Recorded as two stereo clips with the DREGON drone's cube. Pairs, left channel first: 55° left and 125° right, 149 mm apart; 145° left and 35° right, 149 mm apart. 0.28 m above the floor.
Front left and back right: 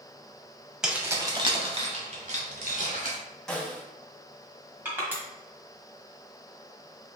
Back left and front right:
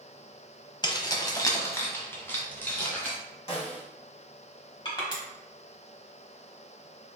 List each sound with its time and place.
0.8 s keys jangling: 155° left, 0.7 m; by 3.1 s 135° right, 1.8 m
3.5 s a snare drum: 140° left, 1.9 m
4.8 s crushing: 170° left, 1.4 m